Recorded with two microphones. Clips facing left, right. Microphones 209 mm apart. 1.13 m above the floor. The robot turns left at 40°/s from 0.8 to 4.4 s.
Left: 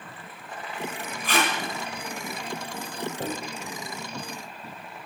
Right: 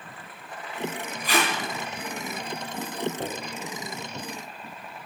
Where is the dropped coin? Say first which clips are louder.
Left 1 dB; 5° right (ahead or behind), 1.1 m; by 3.3 s centre (ahead or behind), 1.1 m.